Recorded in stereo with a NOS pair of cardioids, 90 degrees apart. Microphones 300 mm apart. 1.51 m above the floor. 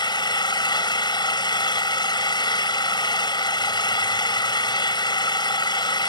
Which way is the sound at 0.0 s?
15° left.